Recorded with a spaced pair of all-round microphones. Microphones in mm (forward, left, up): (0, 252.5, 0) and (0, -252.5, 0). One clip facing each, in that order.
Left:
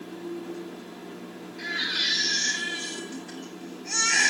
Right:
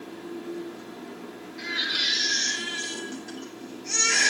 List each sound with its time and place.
1.6 s a baby crying: 75° right (ahead or behind), 5 m